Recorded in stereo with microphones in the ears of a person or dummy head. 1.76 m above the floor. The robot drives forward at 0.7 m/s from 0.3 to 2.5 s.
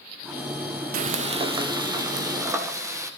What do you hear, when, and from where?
0.9 s frying: 50° right (ahead or behind), 0.8 m; by 3.1 s 20° right (ahead or behind), 1.7 m